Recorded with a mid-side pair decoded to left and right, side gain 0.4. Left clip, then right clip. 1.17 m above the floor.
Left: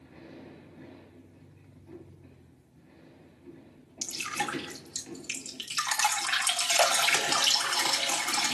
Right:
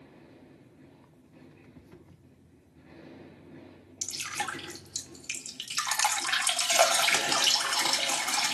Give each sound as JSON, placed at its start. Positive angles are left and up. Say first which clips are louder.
{"t": 4.0, "sound": "dripping", "louder": "left 1 dB", "azimuth_deg": -20, "distance_m": 2.0}